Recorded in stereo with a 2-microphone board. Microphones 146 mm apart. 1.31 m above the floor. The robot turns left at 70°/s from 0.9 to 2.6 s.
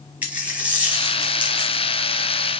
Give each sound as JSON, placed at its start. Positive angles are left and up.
{"t": 0.2, "sound": "a dropped coin", "azimuth_deg": -15, "distance_m": 1.1}